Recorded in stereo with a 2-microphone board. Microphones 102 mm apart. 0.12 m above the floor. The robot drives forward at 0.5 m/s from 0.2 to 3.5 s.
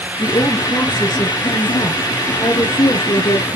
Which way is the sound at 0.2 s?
40° left (ahead or behind).